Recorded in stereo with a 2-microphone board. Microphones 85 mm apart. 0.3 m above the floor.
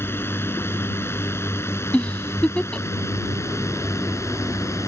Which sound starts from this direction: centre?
A giggle, at 1.9 s.